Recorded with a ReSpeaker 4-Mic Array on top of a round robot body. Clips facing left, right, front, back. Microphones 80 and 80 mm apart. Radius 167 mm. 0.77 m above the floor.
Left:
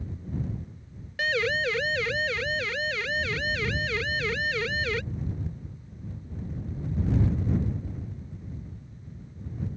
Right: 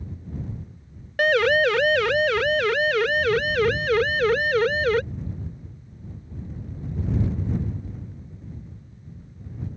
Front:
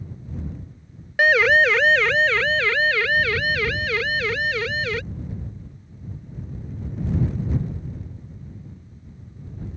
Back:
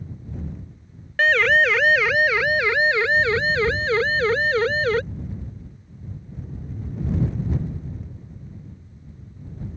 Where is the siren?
80° right; by 5.0 s 130° right.